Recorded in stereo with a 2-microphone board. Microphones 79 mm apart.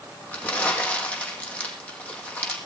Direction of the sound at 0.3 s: 20° left (ahead or behind).